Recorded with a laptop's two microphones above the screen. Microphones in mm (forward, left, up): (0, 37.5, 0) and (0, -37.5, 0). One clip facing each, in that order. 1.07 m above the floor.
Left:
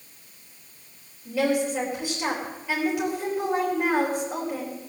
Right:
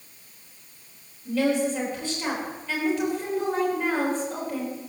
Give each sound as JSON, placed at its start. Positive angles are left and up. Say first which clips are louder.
{"t": 1.2, "sound": "a woman speaking", "louder": "even", "side_deg": 10, "distance_m": 4.0}